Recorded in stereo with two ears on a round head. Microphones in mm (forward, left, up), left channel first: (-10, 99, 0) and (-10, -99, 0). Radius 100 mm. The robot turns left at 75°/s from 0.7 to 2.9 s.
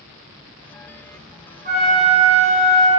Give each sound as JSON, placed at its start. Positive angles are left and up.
{"t": 1.6, "sound": "a flute", "azimuth_deg": -45, "distance_m": 2.5}